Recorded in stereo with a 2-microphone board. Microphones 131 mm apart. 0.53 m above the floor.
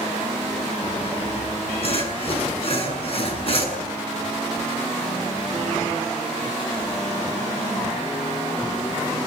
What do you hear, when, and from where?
1.0 s sawing: 45° left (ahead or behind), 7 m